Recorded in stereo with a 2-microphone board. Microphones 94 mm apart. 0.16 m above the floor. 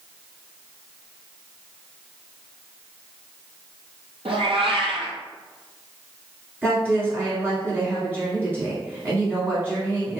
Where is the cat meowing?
80° right, 0.7 m.